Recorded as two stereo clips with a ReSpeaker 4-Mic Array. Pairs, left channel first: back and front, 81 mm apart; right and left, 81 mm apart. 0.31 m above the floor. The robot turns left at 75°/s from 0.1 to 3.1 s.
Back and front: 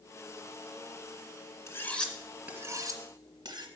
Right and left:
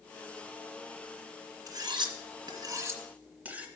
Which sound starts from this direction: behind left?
Cutlery clinking, at 1.7 s.